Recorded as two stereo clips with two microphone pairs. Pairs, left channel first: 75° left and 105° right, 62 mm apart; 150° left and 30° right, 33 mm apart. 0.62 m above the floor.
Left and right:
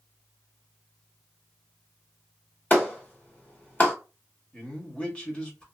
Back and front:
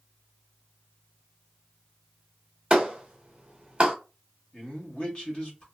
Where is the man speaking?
125° left, 1.3 m.